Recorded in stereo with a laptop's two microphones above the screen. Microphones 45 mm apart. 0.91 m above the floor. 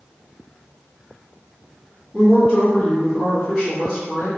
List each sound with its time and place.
2.1 s a woman speaking: 5° left (ahead or behind), 1.9 m